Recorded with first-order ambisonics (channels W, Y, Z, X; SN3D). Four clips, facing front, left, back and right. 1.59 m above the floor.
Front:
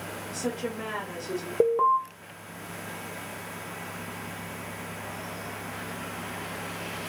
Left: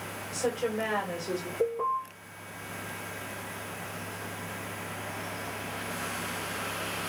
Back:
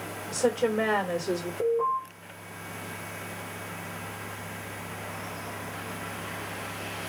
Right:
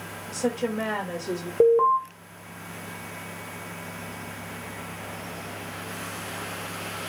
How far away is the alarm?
About 0.9 m.